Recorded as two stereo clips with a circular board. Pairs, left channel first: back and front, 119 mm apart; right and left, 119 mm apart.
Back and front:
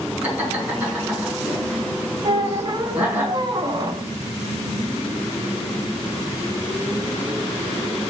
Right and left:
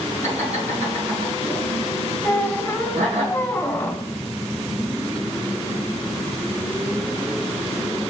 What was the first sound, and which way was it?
Laughter, 75° left.